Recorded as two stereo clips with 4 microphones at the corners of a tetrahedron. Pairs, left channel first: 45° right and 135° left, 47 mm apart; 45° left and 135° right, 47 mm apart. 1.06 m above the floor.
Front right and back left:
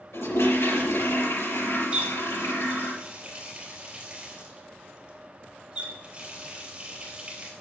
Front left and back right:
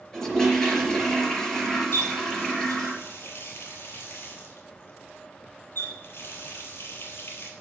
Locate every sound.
0.1 s a toilet flushing: 30° right, 4.5 m
1.9 s a running tap: 65° left, 3.5 m